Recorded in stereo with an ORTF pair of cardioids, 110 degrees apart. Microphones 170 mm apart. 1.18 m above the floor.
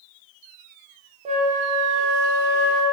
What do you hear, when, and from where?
1.2 s a flute: 45° right, 0.6 m